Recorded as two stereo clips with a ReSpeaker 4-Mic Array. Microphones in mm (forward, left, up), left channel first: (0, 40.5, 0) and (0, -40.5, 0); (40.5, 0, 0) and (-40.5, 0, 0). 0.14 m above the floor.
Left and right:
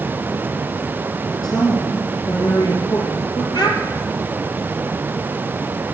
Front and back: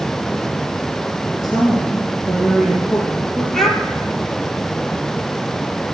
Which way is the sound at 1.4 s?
95° left.